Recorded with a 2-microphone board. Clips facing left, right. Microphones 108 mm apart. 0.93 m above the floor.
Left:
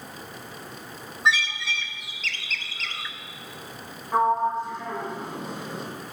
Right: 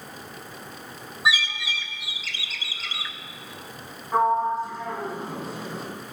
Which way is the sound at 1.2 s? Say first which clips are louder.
Left 1 dB; 10° right (ahead or behind).